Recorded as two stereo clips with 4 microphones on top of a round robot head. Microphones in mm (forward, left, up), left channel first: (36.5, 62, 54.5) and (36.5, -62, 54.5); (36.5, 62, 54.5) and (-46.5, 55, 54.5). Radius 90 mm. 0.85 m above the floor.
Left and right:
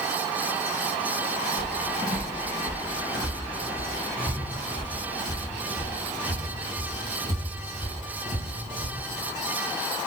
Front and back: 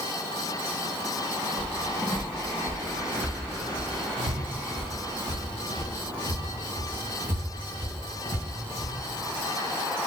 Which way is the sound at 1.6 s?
100° right.